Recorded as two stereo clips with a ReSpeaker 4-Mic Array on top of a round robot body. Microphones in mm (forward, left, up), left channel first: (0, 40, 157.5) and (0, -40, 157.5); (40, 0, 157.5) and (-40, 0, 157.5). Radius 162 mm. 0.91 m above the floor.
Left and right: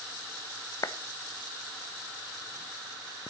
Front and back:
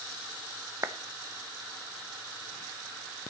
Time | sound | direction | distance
0.8 | a clap | 130° left | 1.3 m